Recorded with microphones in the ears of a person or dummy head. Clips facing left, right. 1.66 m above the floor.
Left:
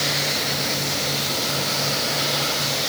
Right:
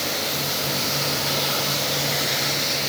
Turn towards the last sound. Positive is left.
No sound to turn to.